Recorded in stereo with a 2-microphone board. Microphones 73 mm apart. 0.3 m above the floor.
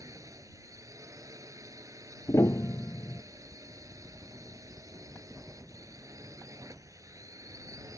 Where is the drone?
50° right (ahead or behind).